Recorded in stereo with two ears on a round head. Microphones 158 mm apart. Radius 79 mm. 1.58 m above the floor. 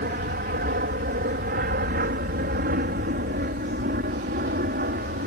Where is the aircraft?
50° right (ahead or behind).